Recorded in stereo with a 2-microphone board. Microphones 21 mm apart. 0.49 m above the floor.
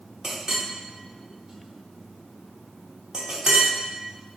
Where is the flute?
No flute in this recording.